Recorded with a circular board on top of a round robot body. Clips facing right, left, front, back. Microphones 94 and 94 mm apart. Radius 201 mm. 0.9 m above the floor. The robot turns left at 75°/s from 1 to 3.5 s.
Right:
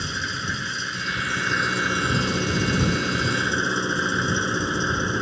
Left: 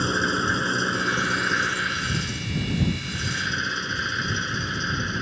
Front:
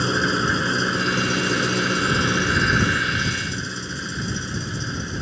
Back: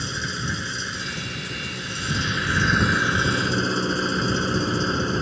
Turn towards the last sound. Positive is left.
turn(degrees=-150)